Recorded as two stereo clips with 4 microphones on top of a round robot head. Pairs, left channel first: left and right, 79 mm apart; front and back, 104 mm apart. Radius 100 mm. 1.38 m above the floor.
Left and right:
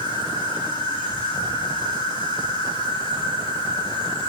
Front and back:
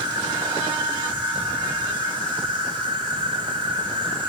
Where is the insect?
145° left, 3 m.